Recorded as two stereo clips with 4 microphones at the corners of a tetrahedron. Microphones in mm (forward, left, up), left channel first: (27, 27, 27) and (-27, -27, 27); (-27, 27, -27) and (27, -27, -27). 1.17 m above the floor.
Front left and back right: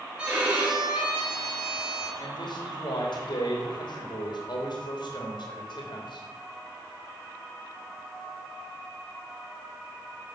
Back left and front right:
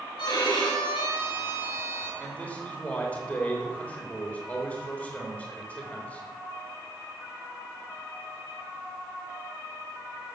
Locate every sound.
0.2 s a violin: 150° left, 4 m
2.2 s a man speaking: 70° left, 3 m